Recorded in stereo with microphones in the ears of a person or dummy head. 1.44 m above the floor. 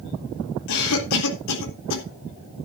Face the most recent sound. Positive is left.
turn(degrees=80)